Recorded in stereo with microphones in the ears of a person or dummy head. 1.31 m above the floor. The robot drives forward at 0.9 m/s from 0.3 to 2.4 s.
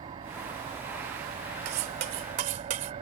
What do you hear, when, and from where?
0.0 s an engine running: 20° right (ahead or behind); by 3.0 s 30° right (ahead or behind)
1.6 s cutlery clinking: 50° right (ahead or behind); by 2.9 s 40° right (ahead or behind)